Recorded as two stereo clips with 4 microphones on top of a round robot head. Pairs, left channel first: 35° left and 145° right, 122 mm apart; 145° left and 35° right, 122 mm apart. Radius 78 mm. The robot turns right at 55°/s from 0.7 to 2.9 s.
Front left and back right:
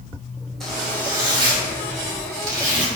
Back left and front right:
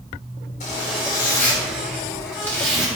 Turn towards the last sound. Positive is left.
turn(degrees=-115)